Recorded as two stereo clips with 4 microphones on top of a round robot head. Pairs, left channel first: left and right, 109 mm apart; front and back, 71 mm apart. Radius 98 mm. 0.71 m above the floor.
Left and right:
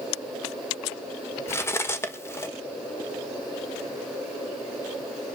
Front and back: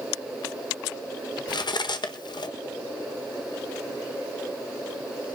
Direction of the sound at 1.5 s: 20° left.